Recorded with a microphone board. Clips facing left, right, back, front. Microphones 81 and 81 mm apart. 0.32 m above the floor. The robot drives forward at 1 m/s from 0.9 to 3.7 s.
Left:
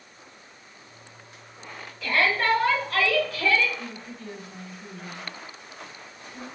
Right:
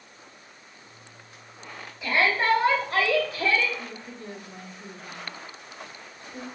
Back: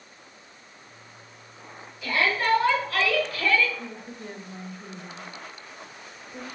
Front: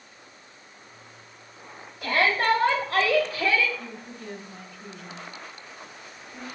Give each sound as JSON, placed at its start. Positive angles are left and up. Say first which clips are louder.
{"t": 2.0, "sound": "a shout", "louder": "even, front 2 dB", "azimuth_deg": -20, "distance_m": 2.5}
{"t": 3.8, "sound": "a woman speaking", "louder": "left 1 dB, back 1 dB", "azimuth_deg": -130, "distance_m": 1.1}